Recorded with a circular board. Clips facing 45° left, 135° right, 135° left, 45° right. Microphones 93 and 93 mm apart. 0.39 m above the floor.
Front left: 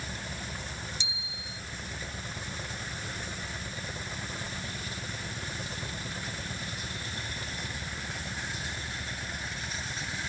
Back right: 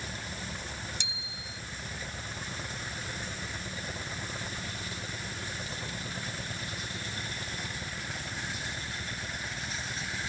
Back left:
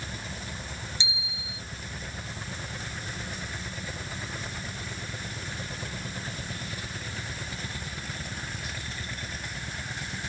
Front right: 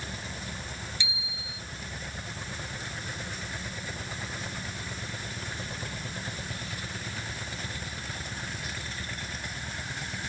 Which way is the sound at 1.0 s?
160° right.